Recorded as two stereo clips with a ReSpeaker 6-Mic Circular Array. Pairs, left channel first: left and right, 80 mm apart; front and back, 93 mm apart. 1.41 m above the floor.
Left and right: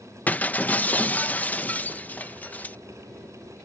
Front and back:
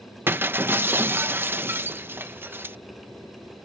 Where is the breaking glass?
140° left.